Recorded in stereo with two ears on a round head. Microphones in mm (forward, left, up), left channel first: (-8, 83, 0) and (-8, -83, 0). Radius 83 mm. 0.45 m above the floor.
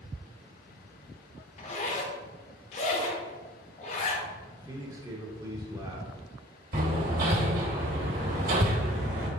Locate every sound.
1.6 s a zipper: 40° left (ahead or behind), 0.6 m
4.5 s a man speaking: 20° right (ahead or behind), 0.7 m
6.7 s hammering: 50° right (ahead or behind), 1.2 m